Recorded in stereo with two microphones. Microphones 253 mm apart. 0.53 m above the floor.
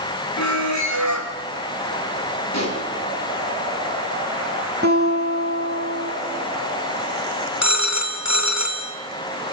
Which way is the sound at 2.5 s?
80° left.